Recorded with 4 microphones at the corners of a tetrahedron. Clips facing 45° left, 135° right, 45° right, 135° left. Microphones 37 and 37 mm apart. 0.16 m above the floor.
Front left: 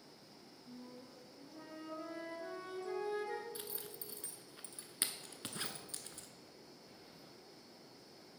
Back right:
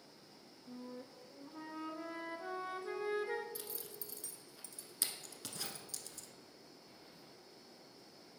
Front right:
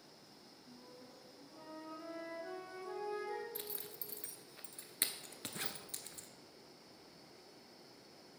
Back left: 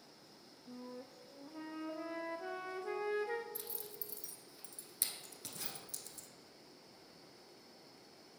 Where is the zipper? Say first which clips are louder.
Front left 1 dB, front right 1 dB; 5° right, 0.8 m.